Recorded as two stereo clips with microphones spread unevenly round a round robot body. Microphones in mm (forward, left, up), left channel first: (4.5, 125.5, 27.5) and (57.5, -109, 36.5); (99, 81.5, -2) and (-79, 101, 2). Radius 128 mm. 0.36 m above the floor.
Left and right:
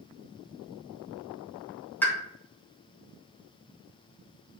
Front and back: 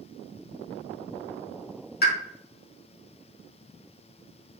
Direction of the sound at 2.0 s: 20° left.